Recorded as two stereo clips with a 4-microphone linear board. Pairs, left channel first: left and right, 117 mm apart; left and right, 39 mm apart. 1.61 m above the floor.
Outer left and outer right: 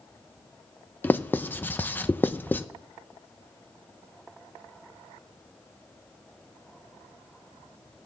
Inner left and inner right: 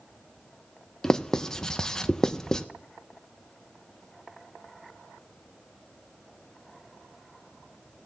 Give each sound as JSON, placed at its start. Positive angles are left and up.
{"t": 1.0, "sound": "writing", "side_deg": 15, "distance_m": 0.7}